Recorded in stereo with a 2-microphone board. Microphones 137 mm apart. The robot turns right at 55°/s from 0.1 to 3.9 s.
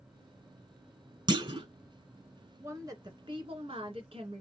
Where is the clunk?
35° right (ahead or behind), 0.7 m.